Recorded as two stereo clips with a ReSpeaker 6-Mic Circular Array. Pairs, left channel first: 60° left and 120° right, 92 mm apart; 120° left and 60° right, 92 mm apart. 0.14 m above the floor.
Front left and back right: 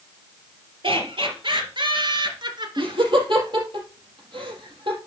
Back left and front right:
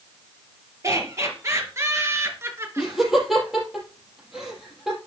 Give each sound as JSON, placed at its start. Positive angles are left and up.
{"t": 0.8, "sound": "laughter", "azimuth_deg": -115, "distance_m": 3.5}
{"t": 2.8, "sound": "laughter", "azimuth_deg": -145, "distance_m": 4.0}